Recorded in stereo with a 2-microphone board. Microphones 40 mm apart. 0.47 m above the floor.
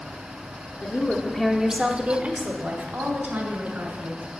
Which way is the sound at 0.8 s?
35° left (ahead or behind).